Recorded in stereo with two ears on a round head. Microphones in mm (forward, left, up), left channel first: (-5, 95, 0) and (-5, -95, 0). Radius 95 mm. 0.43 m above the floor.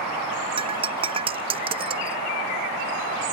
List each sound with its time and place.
0.6 s breaking glass: 25° right (ahead or behind)